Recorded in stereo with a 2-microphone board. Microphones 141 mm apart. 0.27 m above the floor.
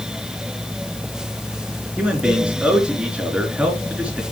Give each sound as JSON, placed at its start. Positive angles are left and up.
{"t": 2.0, "sound": "a man speaking", "side_deg": -10, "distance_m": 4.0}